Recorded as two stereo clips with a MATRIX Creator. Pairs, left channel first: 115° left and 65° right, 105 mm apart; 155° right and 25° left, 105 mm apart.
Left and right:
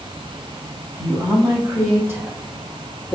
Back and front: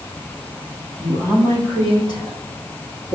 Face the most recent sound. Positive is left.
turn(degrees=-170)